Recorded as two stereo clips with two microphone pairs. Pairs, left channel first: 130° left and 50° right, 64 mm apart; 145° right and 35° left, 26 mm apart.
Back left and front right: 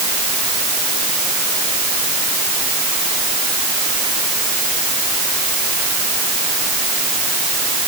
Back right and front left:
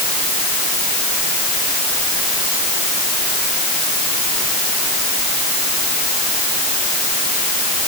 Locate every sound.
Only background noise.